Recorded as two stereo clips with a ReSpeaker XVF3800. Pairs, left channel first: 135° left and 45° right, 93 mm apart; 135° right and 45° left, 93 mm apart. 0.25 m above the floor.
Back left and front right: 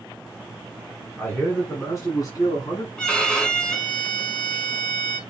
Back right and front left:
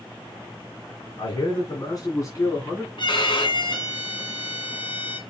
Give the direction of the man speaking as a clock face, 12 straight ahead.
5 o'clock.